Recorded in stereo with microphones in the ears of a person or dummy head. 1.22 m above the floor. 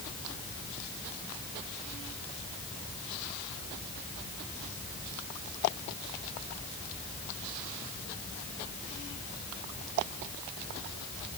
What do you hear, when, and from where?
Only background noise.